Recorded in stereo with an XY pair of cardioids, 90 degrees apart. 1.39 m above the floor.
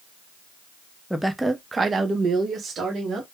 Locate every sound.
1.1 s a woman speaking: 5° left, 0.6 m; by 3.2 s 70° right, 1.1 m